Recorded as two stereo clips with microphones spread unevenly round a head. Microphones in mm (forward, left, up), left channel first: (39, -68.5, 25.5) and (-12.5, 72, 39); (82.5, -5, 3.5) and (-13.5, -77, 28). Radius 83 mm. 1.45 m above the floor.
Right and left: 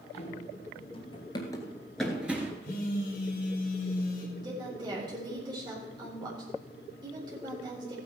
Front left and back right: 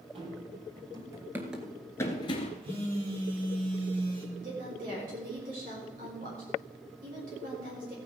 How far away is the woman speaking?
About 4 m.